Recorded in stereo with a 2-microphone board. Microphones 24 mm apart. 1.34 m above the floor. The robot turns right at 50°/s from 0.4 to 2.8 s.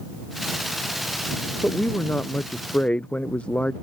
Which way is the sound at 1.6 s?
55° left.